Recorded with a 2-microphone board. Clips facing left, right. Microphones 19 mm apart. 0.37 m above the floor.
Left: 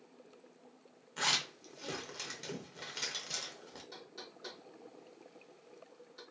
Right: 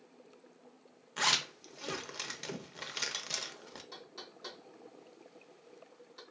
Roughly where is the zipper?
Centre.